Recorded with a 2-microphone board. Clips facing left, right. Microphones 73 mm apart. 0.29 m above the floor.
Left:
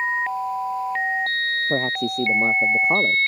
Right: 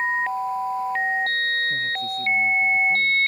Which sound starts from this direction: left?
A man speaking, at 1.7 s.